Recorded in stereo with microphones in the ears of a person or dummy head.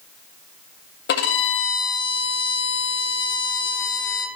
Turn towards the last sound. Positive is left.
turn(degrees=60)  # may be behind; listen again after turning